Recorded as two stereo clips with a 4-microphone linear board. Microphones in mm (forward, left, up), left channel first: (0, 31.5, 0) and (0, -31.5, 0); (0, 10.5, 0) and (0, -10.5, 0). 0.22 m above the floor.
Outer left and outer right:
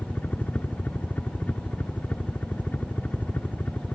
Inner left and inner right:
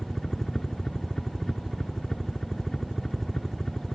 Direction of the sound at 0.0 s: 20° left (ahead or behind).